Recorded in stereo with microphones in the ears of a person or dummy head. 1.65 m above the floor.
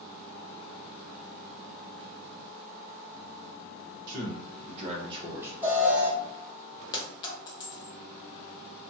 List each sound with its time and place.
4.1 s a man speaking: 55° right (ahead or behind), 1.0 m; by 5.5 s 10° right (ahead or behind), 0.5 m
5.6 s an alarm: 15° right (ahead or behind), 1.1 m
6.9 s a clink: 25° left (ahead or behind), 0.7 m